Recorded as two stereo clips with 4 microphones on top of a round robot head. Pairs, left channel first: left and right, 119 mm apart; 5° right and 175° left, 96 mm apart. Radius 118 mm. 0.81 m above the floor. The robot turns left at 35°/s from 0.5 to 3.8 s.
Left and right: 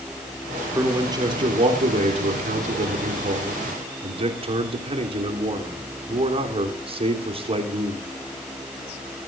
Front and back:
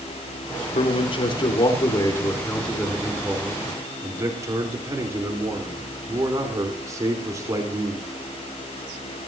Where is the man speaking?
20° right, 3 m; by 8.0 s 125° right, 3 m.